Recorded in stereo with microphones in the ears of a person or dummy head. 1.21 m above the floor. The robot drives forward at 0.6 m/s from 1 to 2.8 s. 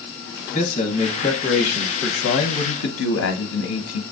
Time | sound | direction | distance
0.5 | a man speaking | 35° left (ahead or behind) | 1.1 m